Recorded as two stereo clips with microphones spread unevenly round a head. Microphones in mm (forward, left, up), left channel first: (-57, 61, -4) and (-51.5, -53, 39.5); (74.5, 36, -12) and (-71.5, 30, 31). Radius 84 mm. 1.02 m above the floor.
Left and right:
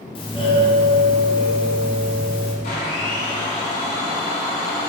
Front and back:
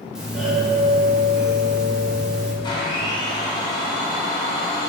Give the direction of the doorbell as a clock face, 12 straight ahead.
9 o'clock.